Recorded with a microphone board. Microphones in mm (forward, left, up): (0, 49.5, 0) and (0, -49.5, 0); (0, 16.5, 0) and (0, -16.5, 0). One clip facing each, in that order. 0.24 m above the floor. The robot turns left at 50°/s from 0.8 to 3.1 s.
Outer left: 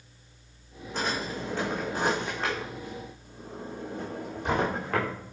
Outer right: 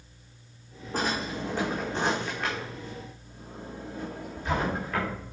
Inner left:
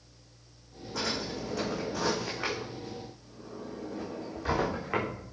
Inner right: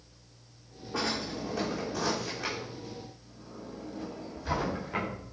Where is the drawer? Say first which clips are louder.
Outer right 1 dB, inner right 1 dB; 45° right (ahead or behind), 4 m; by 5.1 s 65° left (ahead or behind), 4 m.